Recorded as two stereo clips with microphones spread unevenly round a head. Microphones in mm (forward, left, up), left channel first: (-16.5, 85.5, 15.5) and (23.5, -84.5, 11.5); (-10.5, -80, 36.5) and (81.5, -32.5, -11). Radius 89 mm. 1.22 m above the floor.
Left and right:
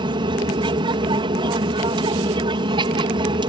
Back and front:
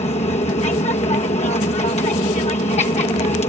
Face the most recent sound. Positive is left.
turn(degrees=-135)